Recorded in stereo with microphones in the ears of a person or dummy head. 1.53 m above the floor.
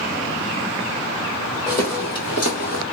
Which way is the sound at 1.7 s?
15° left (ahead or behind).